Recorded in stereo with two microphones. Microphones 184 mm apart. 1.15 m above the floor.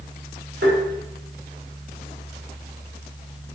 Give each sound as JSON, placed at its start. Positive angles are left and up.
{"t": 0.6, "sound": "tapping", "side_deg": -75, "distance_m": 3.0}